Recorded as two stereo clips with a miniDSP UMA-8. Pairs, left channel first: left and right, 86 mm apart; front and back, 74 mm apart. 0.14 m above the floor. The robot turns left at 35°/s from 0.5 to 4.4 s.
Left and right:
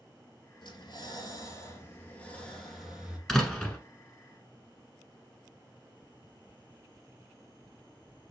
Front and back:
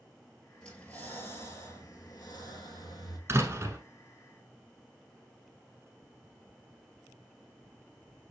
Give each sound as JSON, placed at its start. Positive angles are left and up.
{"t": 0.6, "sound": "breathing", "azimuth_deg": 80, "distance_m": 1.2}
{"t": 3.3, "sound": "a door slam", "azimuth_deg": 180, "distance_m": 1.3}